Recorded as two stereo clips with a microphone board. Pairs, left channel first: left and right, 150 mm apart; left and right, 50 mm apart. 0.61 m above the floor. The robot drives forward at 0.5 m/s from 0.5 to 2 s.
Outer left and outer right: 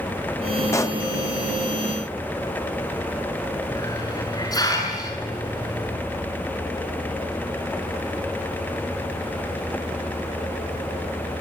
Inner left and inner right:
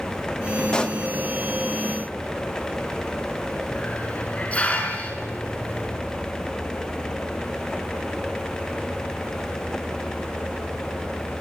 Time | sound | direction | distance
0.7 | a pop | 20° left (ahead or behind) | 0.7 m
3.7 | a hiss | 25° left (ahead or behind) | 7.5 m